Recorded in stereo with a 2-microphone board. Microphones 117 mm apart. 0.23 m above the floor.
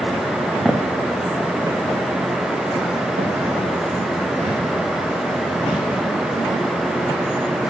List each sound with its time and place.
0.7 s footsteps: 5° right (ahead or behind), 1.1 m; by 5.8 s 75° right (ahead or behind), 4 m